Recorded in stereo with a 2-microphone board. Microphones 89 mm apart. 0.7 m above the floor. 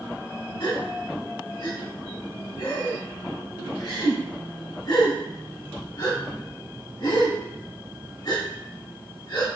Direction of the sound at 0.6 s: 60° left (ahead or behind).